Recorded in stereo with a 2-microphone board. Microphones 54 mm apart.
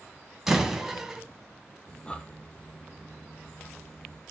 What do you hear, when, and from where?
0.5 s a door slam: 10° right (ahead or behind), 1.2 m
1.9 s breathing: 20° left (ahead or behind), 0.9 m